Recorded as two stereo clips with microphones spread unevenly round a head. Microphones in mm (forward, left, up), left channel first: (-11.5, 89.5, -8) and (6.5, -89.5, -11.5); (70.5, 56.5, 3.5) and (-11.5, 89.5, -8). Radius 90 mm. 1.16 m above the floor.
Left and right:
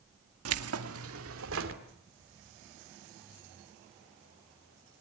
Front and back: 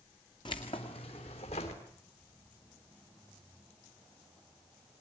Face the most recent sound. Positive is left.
turn(degrees=-65)